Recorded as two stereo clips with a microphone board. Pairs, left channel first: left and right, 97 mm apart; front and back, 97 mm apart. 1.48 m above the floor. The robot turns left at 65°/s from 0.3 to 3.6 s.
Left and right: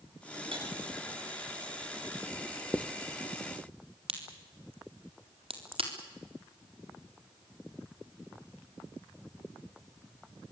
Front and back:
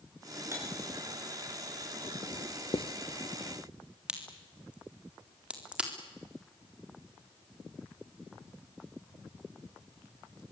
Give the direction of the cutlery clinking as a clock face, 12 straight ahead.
4 o'clock.